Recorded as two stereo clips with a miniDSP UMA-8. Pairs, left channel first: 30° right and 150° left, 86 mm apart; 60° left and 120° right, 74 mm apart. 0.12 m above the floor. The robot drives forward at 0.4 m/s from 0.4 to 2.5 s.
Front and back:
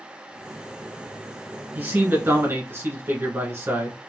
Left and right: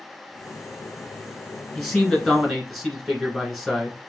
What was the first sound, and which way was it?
A man speaking, 145° left.